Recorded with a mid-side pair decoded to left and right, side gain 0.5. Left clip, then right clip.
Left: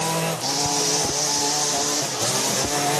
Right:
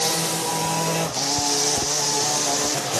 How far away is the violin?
No violin in this recording.